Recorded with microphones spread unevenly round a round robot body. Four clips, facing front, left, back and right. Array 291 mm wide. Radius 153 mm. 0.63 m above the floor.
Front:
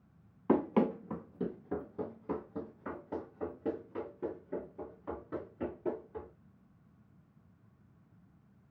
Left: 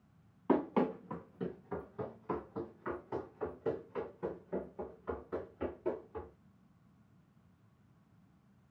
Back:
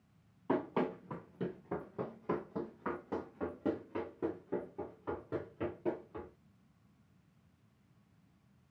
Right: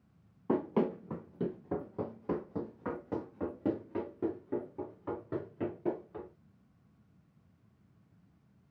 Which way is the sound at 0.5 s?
5° left.